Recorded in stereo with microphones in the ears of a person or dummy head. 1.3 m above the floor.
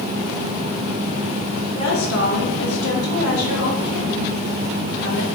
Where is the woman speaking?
80° left, 2.0 m.